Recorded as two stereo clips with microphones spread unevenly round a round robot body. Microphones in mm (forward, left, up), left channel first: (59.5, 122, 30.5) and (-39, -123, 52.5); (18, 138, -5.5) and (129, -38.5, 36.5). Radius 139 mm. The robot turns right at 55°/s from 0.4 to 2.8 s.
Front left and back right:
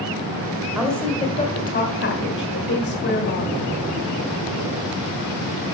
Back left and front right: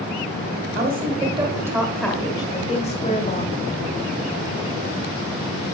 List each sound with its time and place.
0.8 s a woman speaking: 25° right, 1.5 m; by 3.5 s 90° left, 1.5 m